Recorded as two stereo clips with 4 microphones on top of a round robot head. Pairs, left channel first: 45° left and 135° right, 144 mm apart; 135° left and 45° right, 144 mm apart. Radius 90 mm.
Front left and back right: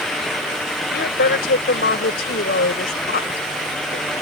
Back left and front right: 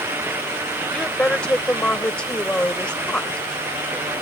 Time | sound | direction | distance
0.9 | a woman speaking | 55° left | ?